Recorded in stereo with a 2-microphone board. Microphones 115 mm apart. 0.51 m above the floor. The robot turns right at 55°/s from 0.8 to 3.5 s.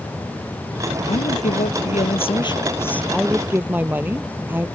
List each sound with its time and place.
1.1 s a woman speaking: 65° left; by 4.7 s 165° right